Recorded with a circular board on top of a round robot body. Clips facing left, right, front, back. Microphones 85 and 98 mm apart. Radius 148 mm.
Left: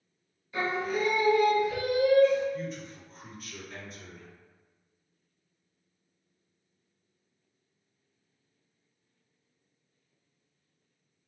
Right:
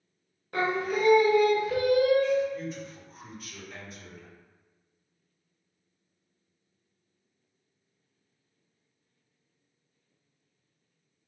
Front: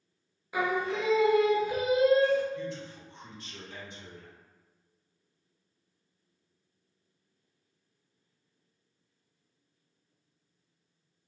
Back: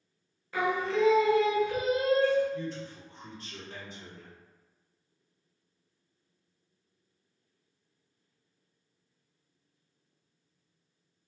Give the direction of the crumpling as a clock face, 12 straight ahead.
No crumpling in this recording.